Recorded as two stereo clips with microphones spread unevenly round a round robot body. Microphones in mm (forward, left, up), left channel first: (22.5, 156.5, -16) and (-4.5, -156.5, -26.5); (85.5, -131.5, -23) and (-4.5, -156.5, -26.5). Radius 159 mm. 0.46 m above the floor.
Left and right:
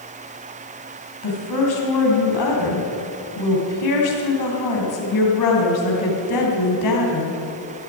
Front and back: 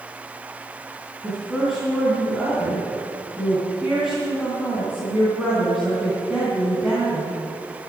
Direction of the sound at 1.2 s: 105° left.